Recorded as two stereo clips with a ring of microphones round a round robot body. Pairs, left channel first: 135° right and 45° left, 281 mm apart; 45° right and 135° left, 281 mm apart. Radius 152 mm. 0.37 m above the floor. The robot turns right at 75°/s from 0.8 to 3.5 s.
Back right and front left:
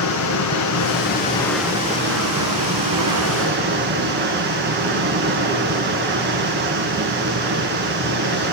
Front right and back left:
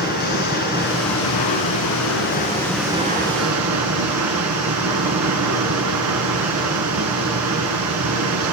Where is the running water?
105° right, 2.0 m; by 8.5 s 100° left, 2.0 m.